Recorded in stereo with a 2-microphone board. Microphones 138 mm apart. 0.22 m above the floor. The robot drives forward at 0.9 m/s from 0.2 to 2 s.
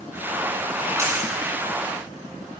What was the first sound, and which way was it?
A dropped coin, 20° right (ahead or behind).